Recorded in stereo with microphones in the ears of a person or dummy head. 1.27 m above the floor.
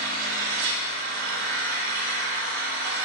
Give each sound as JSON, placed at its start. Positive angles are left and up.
{"t": 0.0, "sound": "an engine running", "side_deg": -70, "distance_m": 1.5}